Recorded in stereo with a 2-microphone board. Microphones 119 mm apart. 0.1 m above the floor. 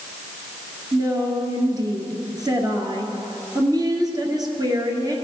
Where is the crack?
No crack in this recording.